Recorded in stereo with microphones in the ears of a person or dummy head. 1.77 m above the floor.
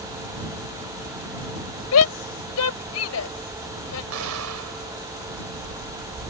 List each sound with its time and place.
1.9 s a shout: 85° left
4.1 s an explosion: 85° right